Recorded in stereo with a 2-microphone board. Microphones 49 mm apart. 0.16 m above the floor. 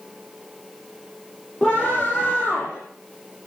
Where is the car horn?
I don't hear a car horn.